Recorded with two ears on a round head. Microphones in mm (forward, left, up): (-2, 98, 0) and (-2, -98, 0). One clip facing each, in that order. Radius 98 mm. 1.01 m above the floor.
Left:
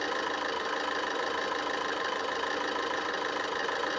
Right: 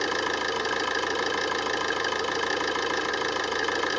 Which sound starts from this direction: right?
An engine running, at 0.0 s.